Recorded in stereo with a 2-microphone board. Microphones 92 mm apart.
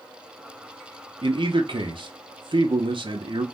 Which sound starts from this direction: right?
A man speaking, at 1.2 s.